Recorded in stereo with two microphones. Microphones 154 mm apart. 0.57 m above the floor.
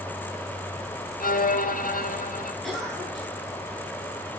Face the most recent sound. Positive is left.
turn(degrees=0)  # may be behind; listen again after turning